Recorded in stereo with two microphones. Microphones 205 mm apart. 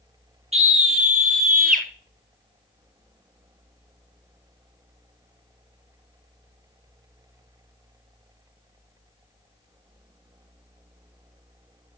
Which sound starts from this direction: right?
A scream, at 0.5 s.